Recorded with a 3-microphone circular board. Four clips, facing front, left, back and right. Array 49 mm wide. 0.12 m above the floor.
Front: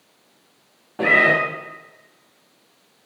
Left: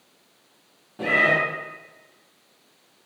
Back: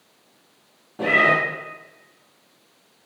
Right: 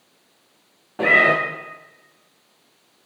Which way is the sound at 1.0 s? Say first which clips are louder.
Right 5 dB, front 2 dB; 55° right.